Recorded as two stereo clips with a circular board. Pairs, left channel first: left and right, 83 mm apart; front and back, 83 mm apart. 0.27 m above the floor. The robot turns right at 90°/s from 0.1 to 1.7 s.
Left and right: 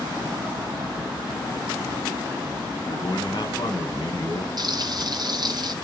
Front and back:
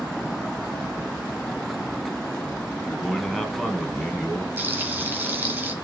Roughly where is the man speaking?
Left.